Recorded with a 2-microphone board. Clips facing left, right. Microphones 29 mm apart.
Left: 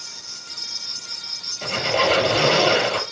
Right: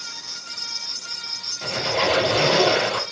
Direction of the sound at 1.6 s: 25° left (ahead or behind).